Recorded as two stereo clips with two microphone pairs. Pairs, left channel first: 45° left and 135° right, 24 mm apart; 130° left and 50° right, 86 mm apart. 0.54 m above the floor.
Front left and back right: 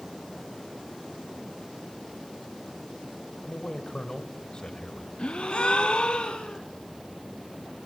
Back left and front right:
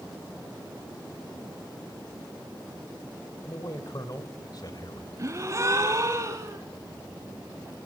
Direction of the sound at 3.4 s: 95° left.